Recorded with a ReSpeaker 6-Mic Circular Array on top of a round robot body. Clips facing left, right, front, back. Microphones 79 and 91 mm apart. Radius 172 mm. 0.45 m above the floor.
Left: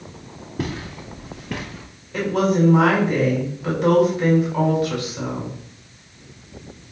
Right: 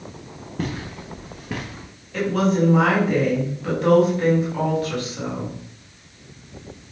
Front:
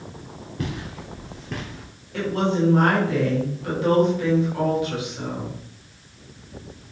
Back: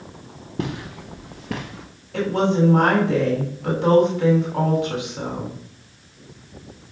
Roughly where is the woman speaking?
Behind.